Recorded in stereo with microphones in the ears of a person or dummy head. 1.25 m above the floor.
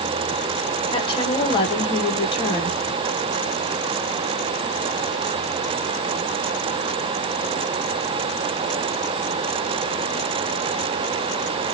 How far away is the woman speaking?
About 1.2 m.